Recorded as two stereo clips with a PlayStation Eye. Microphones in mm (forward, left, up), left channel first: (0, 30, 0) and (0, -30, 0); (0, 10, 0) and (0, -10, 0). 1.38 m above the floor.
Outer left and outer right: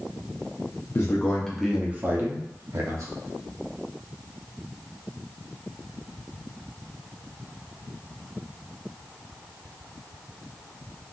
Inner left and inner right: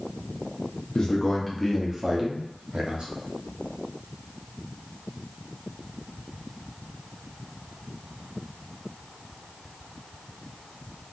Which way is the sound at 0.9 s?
40° left (ahead or behind).